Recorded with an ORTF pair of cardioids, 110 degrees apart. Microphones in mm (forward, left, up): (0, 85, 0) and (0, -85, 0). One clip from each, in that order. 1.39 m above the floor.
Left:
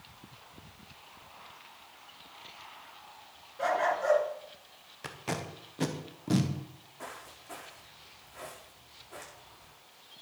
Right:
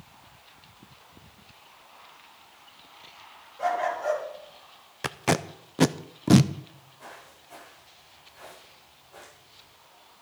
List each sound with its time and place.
3.6 s a dog barking: 15° left, 4.5 m
5.0 s tape being pulled: 55° right, 0.7 m
7.0 s footsteps: 65° left, 7 m